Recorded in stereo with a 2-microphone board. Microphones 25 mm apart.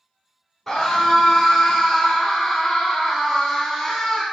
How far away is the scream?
About 1.5 m.